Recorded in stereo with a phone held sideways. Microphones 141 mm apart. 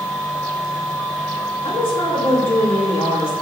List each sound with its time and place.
0.0 s a machine running: 10° left (ahead or behind), 1.4 m
1.6 s a woman speaking: 40° left (ahead or behind), 1.9 m